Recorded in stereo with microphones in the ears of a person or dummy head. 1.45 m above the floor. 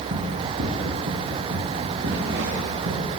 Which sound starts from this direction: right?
Running footsteps, at 0.1 s.